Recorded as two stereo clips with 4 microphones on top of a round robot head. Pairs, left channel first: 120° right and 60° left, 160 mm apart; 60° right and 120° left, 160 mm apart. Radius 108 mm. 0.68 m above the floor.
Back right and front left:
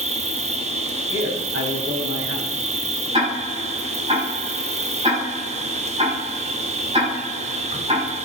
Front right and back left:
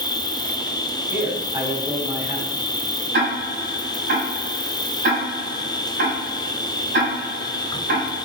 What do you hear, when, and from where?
0.0 s an insect: 10° left, 0.7 m
1.1 s a man speaking: 50° left, 4.5 m
3.1 s ticking: 115° left, 7 m